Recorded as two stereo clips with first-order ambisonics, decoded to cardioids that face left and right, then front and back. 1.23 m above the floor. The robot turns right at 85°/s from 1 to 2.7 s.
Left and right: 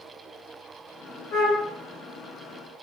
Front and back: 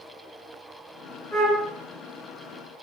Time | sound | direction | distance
1.3 | a flute | 65° left | 0.7 m